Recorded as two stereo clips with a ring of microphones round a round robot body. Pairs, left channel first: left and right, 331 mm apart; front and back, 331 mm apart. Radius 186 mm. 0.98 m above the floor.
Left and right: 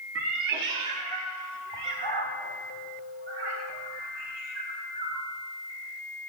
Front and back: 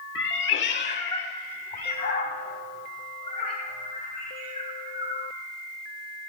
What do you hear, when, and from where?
0.1 s a cat meowing: 45° right, 0.7 m; by 5.3 s 65° right, 6 m